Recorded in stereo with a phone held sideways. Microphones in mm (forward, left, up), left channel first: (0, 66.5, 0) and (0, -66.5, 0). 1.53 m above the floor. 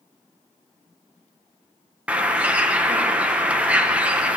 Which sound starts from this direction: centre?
A bird, at 2.1 s.